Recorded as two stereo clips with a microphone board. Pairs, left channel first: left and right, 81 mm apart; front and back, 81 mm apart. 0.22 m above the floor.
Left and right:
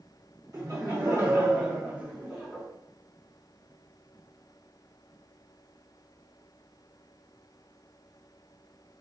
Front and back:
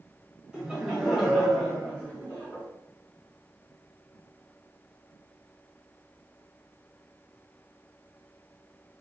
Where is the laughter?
105° right, 1.4 m; by 2.7 s 10° right, 1.2 m.